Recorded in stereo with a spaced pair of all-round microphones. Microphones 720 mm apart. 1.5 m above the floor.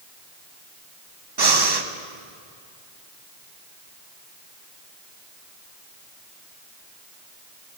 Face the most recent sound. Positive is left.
turn(degrees=-35)  # may be behind; listen again after turning